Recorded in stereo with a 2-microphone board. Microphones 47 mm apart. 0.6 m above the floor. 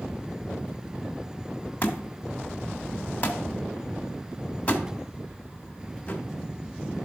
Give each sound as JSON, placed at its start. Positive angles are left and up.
{"t": 1.8, "sound": "a thud", "side_deg": 30, "distance_m": 1.5}